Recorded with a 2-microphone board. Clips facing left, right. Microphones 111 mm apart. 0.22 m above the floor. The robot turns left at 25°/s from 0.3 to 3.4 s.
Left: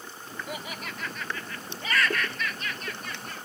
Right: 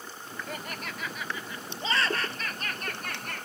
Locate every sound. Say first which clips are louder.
0.5 s laughter: left 1 dB; 10° left; by 3.5 s 60° right